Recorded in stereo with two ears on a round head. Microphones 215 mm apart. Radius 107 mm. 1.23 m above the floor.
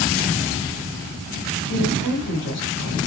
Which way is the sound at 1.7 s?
55° left (ahead or behind).